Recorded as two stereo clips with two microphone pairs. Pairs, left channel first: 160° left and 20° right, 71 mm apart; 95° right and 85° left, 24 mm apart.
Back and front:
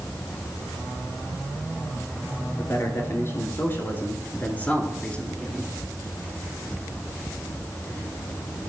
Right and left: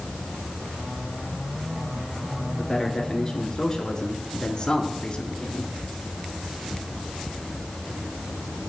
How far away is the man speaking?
About 3 m.